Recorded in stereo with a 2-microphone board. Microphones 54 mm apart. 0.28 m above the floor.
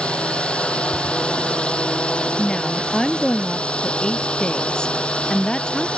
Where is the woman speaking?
10° left (ahead or behind).